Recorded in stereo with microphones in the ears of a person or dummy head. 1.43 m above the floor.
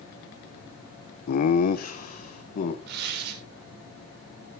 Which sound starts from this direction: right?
Tearing paper, at 2.9 s.